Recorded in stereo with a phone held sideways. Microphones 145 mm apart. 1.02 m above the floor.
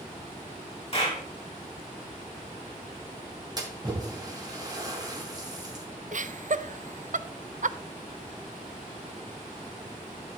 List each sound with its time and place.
0.9 s a clap: 40° left (ahead or behind), 4.5 m
3.6 s a splash: 30° right (ahead or behind), 2.5 m
6.1 s laughter: 60° right (ahead or behind), 0.5 m